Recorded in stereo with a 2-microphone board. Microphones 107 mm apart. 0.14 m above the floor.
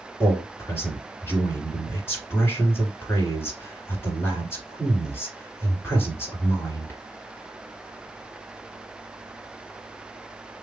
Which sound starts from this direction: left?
A man speaking, at 0.2 s.